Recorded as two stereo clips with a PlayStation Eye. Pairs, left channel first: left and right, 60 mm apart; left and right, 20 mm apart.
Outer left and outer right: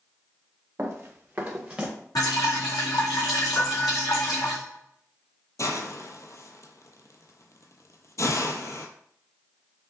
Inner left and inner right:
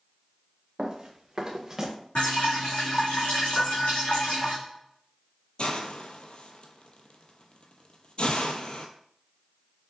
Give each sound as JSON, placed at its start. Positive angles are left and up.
{"t": 0.8, "sound": "running footsteps", "side_deg": -40, "distance_m": 1.6}
{"t": 2.1, "sound": "dripping", "side_deg": 70, "distance_m": 2.0}
{"t": 3.5, "sound": "a piano", "side_deg": 50, "distance_m": 1.2}
{"t": 5.6, "sound": "a hiss", "side_deg": 55, "distance_m": 0.7}